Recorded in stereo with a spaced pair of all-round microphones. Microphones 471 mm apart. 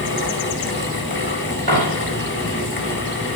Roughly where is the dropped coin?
Right.